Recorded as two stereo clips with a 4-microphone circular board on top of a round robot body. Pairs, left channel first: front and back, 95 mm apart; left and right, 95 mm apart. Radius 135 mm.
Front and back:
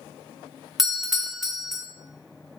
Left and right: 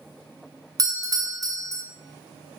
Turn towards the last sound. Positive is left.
turn(degrees=-95)